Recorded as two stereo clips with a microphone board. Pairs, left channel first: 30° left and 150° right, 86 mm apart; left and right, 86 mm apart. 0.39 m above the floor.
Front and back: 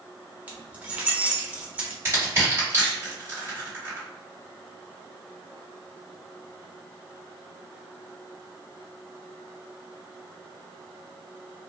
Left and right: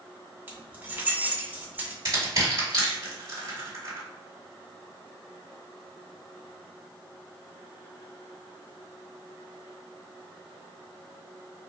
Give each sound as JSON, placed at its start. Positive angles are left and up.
{"t": 0.5, "sound": "keys jangling", "azimuth_deg": -110, "distance_m": 0.6}
{"t": 2.0, "sound": "crushing", "azimuth_deg": -95, "distance_m": 1.9}